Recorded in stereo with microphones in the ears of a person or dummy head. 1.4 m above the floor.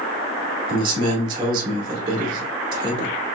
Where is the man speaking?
30° right (ahead or behind), 2 m.